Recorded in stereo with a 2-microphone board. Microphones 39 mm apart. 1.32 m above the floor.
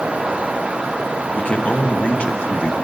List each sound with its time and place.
1.4 s a man speaking: 30° left (ahead or behind), 1.0 m